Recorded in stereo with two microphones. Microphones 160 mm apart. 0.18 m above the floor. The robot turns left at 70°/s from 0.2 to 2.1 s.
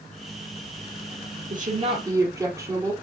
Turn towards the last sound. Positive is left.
turn(degrees=-160)